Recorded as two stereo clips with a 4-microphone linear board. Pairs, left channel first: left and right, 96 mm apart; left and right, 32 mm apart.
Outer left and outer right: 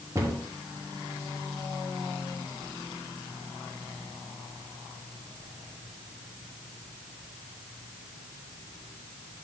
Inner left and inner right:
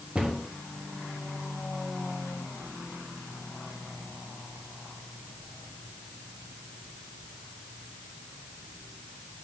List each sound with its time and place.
0.1 s a cupboard door: 35° right (ahead or behind), 1.4 m